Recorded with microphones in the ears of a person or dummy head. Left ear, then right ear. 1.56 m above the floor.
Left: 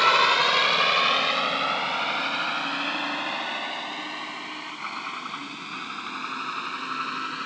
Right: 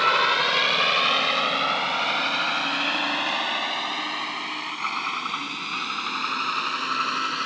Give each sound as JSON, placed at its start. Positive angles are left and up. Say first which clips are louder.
{"t": 0.0, "sound": "a vehicle", "louder": "left 1 dB", "side_deg": 15}